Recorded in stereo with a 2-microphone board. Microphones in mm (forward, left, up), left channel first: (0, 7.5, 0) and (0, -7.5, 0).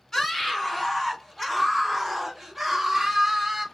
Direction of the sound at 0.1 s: 40° left (ahead or behind).